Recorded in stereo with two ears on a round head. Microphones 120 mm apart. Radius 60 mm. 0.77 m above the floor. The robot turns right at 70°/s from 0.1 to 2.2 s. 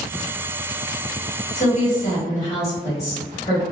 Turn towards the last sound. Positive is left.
turn(degrees=145)